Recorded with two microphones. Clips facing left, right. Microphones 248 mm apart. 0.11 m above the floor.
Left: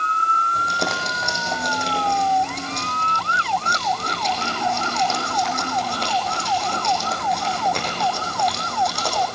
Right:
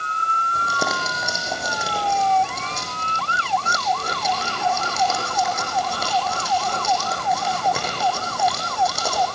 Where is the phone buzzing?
No phone buzzing in this recording.